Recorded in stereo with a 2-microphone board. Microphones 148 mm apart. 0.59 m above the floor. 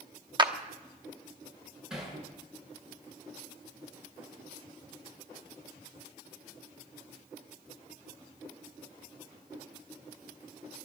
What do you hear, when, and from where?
0.4 s a clap: 30° right (ahead or behind), 0.9 m
1.9 s hammering: 5° right (ahead or behind), 7.5 m